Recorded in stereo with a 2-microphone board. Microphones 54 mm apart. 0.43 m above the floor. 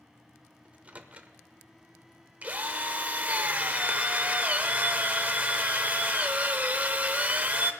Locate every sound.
0.7 s a microwave: 25° right (ahead or behind), 0.8 m
2.4 s a drill: 30° right (ahead or behind), 0.8 m